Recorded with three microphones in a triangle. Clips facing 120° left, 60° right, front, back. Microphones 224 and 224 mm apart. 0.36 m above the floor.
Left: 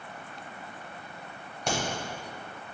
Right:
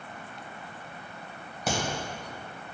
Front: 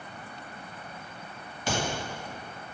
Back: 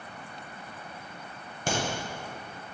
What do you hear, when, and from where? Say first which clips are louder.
1.7 s a crack: right 1 dB, even; 145° right, 1.0 m